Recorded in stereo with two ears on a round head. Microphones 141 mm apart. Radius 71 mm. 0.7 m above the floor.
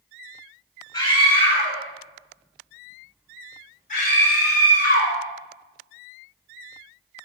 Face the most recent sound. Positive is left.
turn(degrees=60)  # may be behind; listen again after turning